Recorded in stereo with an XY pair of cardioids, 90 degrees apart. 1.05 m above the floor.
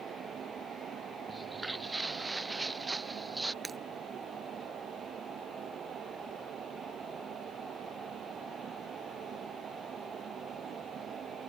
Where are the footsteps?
20° right.